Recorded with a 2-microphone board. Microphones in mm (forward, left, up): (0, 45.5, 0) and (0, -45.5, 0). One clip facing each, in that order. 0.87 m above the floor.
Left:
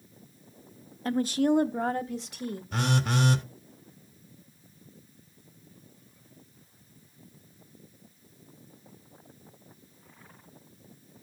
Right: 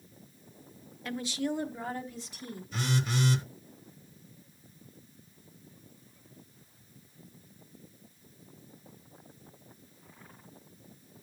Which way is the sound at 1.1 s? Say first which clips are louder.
Left 9 dB; 35° left (ahead or behind).